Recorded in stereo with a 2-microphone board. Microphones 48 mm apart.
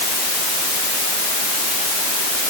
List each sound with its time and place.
Only background noise.